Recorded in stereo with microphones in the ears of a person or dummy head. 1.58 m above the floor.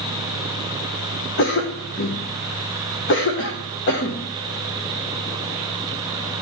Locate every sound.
1.4 s a cough: 60° left (ahead or behind), 1.0 m